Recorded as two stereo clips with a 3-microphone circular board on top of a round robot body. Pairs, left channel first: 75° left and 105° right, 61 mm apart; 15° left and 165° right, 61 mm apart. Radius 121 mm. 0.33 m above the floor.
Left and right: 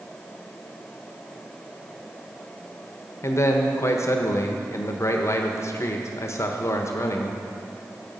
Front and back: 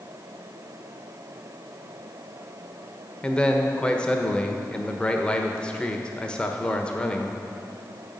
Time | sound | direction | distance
3.2 | a man speaking | 85° left | 1.2 m